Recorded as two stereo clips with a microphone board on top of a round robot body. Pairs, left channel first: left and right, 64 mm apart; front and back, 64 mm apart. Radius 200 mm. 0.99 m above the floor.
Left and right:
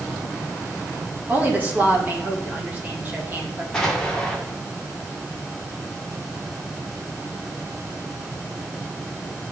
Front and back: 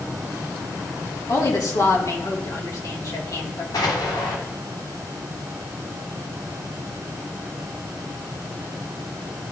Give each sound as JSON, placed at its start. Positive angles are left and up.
{"t": 1.3, "sound": "a woman speaking", "azimuth_deg": -30, "distance_m": 2.0}
{"t": 3.7, "sound": "an explosion", "azimuth_deg": 10, "distance_m": 1.3}